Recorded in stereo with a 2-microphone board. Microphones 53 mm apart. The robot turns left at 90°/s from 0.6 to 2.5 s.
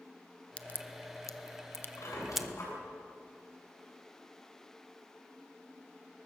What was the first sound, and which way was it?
A crack, 25° left (ahead or behind).